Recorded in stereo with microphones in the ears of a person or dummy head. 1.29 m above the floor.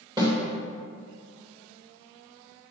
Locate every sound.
0.2 s a snare drum: 20° right (ahead or behind), 2.5 m